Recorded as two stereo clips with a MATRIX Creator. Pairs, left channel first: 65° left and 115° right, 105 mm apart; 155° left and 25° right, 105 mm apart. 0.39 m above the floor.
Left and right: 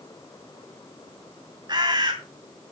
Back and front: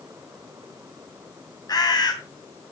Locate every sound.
1.7 s a bird: 155° right, 2.5 m